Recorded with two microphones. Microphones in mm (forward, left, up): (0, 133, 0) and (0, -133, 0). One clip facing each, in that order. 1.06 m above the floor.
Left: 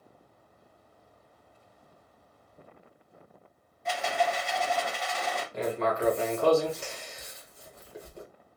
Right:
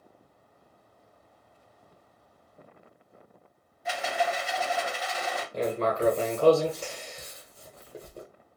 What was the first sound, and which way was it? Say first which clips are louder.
A rattle: even; 5° right (ahead or behind).